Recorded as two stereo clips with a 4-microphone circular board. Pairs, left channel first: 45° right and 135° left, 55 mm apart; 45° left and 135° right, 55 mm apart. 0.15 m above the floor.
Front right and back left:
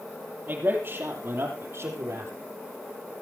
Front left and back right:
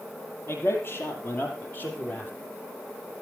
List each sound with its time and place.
0.5 s a man speaking: 85° left, 5 m; by 2.3 s 105° left, 6 m